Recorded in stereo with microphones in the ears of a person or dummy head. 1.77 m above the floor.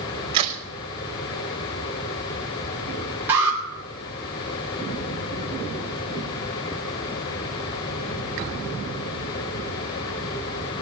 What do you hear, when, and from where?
0.3 s a crack: 30° right (ahead or behind), 3.5 m
3.3 s an alarm: 15° right (ahead or behind), 4 m